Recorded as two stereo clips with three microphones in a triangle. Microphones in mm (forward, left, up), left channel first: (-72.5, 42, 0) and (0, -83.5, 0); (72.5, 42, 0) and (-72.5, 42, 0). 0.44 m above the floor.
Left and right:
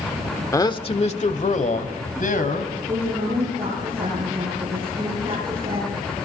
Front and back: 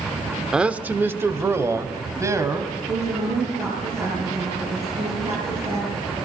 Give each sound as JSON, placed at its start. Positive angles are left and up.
{"t": 0.5, "sound": "a man speaking", "azimuth_deg": 100, "distance_m": 1.1}
{"t": 2.9, "sound": "a woman speaking", "azimuth_deg": -125, "distance_m": 8.0}